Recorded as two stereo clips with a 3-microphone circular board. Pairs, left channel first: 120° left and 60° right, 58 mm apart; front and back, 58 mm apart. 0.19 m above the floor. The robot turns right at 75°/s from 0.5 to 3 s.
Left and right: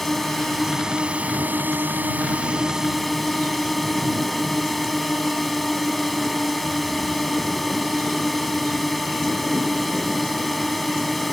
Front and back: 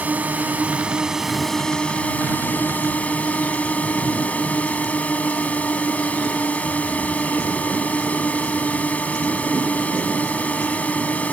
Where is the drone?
155° right; by 11.3 s 30° left.